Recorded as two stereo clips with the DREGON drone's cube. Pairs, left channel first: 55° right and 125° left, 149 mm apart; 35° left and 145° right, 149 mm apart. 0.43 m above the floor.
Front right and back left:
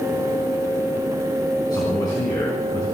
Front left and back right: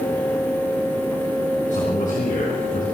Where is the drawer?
I don't hear a drawer.